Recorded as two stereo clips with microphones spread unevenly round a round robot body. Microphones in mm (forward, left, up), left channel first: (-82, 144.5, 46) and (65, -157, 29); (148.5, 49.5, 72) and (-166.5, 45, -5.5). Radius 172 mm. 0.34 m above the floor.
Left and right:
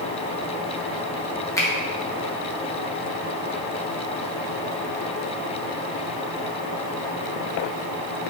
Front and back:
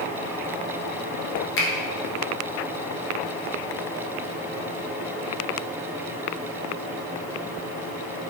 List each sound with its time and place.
1.6 s a finger snap: 40° left, 1.0 m